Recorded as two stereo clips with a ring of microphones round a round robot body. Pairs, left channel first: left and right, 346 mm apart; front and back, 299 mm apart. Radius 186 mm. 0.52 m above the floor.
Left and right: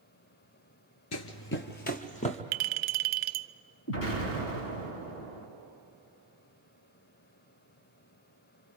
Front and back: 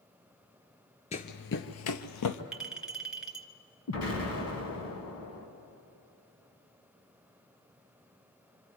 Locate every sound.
1.1 s running footsteps: 60° left, 0.6 m; by 2.4 s 20° left, 1.1 m
2.5 s a clink: 95° right, 0.6 m
3.9 s an explosion: 35° left, 3 m